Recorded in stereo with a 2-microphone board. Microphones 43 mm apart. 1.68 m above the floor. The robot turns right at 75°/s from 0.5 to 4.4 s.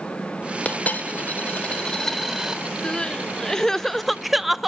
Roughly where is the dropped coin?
Ahead left.